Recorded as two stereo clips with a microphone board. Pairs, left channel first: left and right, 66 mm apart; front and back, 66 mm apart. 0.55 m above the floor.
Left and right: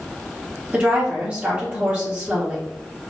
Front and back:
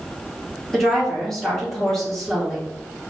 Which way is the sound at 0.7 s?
80° right.